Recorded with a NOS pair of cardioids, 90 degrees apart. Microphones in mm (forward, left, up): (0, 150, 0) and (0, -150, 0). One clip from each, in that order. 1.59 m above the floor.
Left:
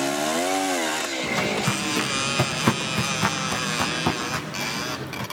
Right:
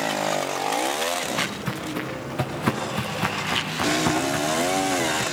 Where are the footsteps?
25° left, 9 m; by 5.2 s 10° right, 8.5 m.